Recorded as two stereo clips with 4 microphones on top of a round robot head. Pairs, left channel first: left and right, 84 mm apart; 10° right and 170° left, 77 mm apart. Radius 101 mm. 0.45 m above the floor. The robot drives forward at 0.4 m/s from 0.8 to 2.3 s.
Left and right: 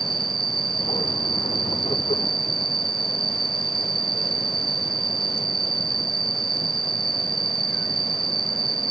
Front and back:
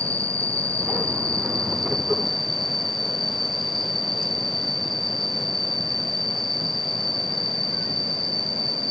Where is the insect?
80° right; by 8.9 s 95° right.